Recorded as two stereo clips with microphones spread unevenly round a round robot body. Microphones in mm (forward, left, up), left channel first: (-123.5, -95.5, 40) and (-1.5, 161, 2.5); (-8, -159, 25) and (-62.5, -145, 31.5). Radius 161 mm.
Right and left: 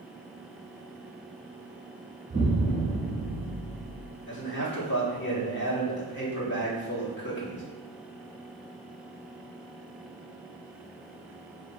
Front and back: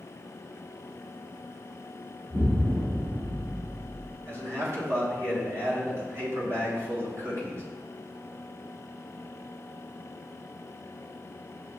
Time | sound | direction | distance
2.3 | an explosion | 130° left | 1.1 m
4.3 | a man speaking | 165° right | 1.5 m